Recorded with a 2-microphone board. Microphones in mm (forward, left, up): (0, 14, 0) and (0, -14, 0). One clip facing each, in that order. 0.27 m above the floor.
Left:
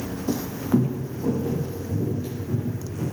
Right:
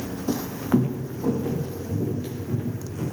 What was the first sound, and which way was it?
Footsteps, 15° right (ahead or behind).